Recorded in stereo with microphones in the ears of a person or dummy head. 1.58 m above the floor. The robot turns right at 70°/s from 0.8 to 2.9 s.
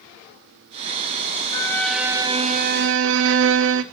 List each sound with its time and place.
1.5 s a violin: 155° left, 0.7 m; by 3.8 s 110° right, 0.7 m